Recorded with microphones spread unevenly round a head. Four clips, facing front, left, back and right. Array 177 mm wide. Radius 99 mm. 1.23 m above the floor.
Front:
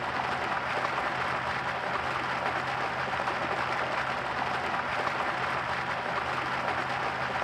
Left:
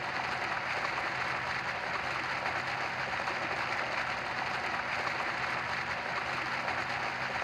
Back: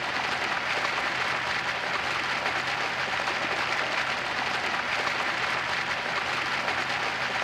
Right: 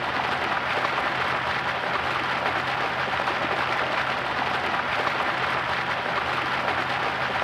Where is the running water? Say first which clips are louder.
Right 9 dB, even; 110° right, 0.7 m.